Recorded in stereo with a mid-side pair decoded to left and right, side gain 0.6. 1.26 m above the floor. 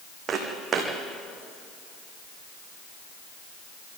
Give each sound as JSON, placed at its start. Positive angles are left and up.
{"t": 0.3, "sound": "footsteps", "azimuth_deg": -35, "distance_m": 4.5}